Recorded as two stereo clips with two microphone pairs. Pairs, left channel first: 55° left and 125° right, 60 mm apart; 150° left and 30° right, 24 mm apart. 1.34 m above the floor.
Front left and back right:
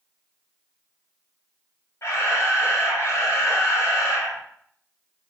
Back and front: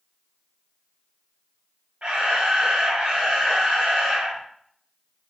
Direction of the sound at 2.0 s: 15° left.